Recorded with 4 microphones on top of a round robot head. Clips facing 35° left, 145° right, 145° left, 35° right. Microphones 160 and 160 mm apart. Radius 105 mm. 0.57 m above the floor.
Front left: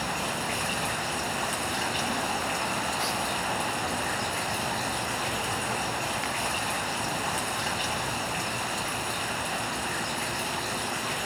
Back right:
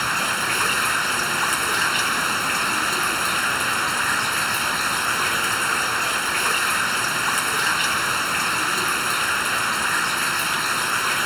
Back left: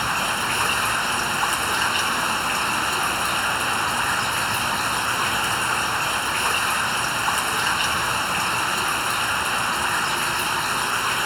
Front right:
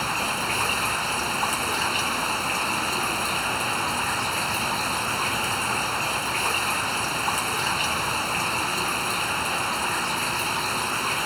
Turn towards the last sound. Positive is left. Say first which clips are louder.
# back right 3 dB, back left 2 dB
turn(degrees=-120)